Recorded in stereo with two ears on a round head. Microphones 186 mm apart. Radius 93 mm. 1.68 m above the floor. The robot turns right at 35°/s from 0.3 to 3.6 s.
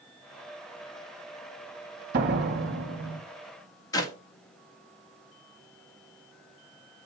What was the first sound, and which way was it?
A door slam, 125° right.